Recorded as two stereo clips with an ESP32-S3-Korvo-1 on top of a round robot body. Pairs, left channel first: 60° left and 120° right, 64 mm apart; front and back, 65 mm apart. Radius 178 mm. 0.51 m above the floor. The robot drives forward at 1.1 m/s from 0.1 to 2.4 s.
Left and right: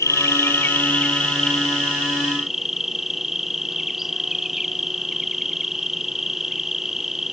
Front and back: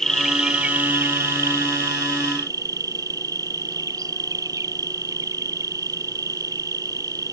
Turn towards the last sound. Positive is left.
turn(degrees=155)